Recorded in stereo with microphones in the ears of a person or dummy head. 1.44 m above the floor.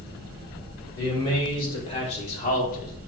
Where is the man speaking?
20° left (ahead or behind), 5 m; by 3.0 s 50° left (ahead or behind), 3.5 m.